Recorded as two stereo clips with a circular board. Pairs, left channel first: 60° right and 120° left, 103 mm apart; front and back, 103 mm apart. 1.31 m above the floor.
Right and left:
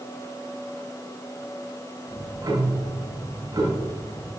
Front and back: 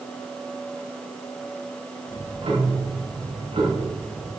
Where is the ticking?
170° left, 5.5 m.